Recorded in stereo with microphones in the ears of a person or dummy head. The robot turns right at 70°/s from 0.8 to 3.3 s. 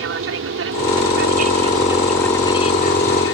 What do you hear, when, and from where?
0.0 s an aircraft: 95° right; by 3.4 s 80° left